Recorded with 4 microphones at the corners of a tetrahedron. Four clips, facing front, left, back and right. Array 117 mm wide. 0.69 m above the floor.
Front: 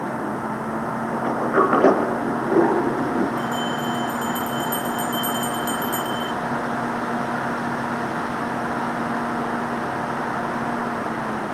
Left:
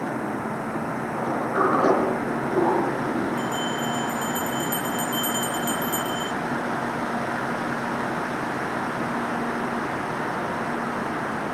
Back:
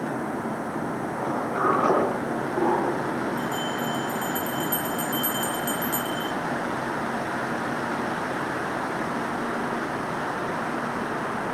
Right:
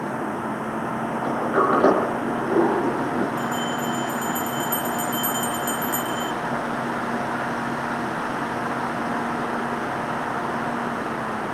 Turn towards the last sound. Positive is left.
turn(degrees=60)